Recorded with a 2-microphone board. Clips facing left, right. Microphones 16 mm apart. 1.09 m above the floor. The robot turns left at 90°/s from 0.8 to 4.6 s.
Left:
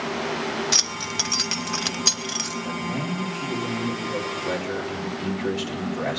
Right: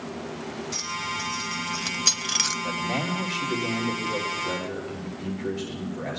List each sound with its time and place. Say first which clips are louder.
0.7 s keys jangling: left 7 dB; 55° left (ahead or behind), 0.5 m; by 2.5 s 35° right (ahead or behind), 0.5 m
2.6 s a man speaking: right 1 dB; 25° right, 3 m; by 6.2 s 160° left, 3 m